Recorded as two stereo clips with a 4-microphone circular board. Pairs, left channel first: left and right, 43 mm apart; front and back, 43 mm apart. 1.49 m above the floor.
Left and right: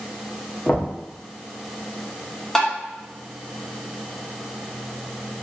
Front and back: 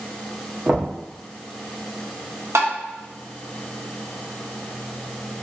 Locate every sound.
0.7 s knocking: 130° left, 0.9 m
2.5 s tapping: 170° left, 0.8 m